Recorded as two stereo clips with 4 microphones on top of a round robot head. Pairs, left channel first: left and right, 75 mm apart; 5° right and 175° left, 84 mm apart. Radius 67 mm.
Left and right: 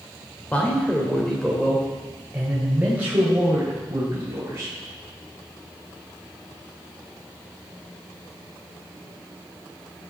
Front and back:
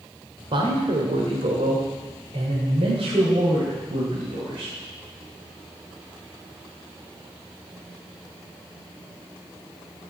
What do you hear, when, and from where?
0.5 s a man speaking: 160° left, 2.5 m; by 4.7 s 145° right, 4 m